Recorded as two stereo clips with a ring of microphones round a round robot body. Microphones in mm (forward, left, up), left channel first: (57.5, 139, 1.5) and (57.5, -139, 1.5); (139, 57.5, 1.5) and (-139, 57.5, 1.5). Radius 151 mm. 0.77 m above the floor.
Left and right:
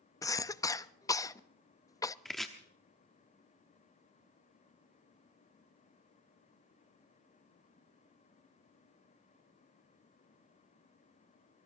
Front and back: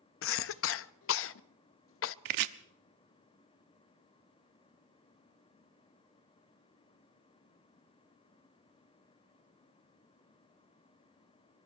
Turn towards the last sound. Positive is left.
turn(degrees=180)